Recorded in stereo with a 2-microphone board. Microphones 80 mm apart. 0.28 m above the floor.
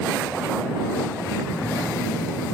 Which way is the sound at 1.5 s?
30° left (ahead or behind).